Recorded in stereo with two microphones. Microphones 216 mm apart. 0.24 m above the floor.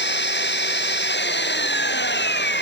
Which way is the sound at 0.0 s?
55° left (ahead or behind).